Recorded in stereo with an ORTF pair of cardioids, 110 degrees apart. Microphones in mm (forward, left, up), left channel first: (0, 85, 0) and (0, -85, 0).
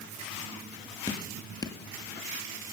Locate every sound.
1.1 s dripping: 20° left, 2 m